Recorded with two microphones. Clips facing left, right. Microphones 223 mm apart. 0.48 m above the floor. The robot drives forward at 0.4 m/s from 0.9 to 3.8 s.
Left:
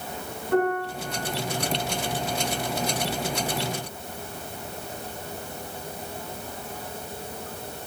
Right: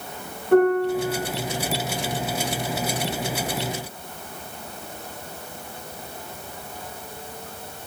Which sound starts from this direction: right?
A piano, at 0.5 s.